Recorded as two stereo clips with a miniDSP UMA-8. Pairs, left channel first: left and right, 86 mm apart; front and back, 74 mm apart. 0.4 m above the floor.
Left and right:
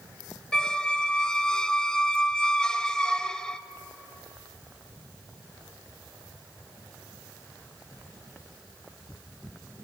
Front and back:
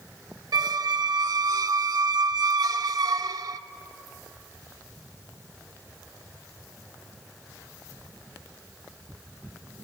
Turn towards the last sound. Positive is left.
turn(degrees=170)